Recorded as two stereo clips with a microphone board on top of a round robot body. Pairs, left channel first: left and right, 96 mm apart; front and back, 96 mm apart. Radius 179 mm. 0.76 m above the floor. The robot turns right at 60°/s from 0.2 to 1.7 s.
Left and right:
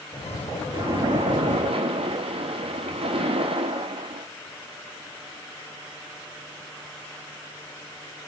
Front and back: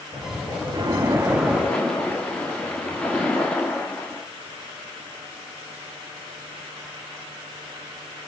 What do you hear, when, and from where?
0.7 s a splash: 135° right, 1.9 m; by 4.3 s 80° right, 1.9 m